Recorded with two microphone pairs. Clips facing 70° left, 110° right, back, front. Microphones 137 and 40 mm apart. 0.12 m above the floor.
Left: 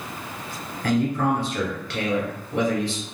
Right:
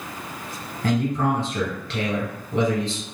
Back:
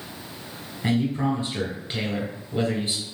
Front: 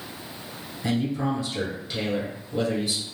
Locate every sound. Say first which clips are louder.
0.8 s a man speaking: even, back 2 dB; 165° right, 1.6 m